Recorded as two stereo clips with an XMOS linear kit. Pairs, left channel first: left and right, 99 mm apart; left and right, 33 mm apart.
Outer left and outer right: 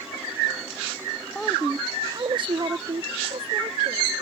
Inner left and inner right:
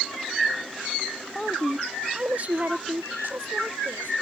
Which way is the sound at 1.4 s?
10° left (ahead or behind).